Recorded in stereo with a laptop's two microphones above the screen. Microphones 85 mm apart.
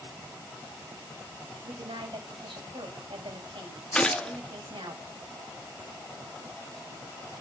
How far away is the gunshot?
About 1.6 m.